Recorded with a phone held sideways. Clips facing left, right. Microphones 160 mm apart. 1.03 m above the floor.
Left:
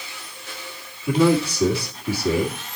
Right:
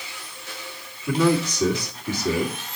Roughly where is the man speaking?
Centre.